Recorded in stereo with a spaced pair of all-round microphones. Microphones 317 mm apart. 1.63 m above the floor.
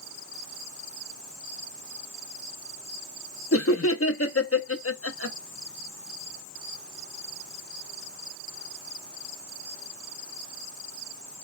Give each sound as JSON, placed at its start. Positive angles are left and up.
{"t": 3.5, "sound": "laughter", "side_deg": 45, "distance_m": 0.7}